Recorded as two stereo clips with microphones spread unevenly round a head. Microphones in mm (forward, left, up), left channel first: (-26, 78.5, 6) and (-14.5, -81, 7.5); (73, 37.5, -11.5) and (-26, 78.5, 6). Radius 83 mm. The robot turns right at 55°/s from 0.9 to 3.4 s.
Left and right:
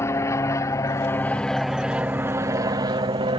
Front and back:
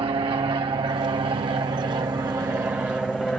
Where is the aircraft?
155° left; by 3.4 s 100° right.